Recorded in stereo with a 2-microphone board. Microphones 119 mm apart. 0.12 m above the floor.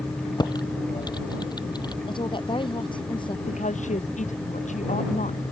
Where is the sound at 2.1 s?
40° left (ahead or behind).